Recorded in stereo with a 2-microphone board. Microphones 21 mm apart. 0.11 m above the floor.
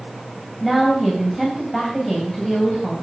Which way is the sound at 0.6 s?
Centre (ahead or behind).